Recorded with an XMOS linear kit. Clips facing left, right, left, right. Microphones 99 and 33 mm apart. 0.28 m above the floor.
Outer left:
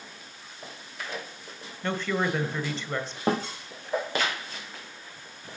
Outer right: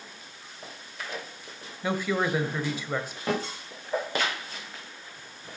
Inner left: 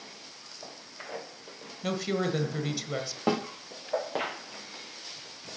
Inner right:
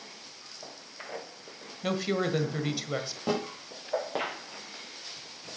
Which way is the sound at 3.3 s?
35° left (ahead or behind).